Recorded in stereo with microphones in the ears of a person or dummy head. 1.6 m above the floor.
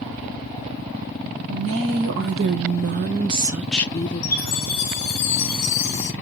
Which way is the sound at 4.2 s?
35° left (ahead or behind).